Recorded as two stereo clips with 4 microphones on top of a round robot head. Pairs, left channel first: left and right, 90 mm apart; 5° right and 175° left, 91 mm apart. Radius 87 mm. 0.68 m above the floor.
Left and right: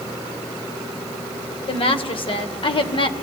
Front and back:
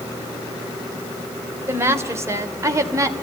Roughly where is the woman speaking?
Left.